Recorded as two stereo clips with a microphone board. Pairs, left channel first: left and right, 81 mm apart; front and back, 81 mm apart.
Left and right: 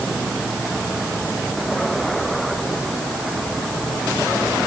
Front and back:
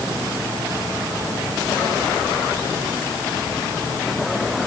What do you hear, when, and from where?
Only background noise.